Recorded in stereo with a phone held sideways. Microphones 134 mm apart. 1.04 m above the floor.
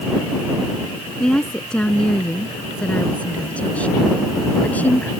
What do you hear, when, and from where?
1.2 s a woman speaking: 5° left (ahead or behind); by 5.1 s 10° left (ahead or behind)